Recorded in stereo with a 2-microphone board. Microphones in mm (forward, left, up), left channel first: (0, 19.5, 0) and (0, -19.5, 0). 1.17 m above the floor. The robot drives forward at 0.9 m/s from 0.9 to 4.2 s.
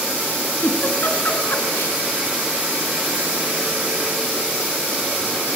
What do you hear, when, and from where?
0.6 s a giggle: 60° left (ahead or behind), 3.5 m; by 2.0 s 70° left (ahead or behind), 3.5 m